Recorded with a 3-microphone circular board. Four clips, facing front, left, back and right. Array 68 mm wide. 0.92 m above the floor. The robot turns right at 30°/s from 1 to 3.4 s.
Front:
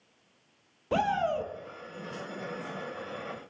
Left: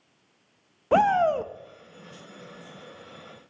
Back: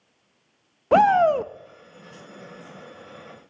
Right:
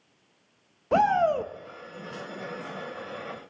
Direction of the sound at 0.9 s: 170° left.